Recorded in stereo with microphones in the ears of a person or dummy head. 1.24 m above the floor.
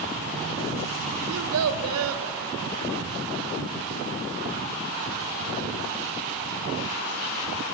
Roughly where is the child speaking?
Right.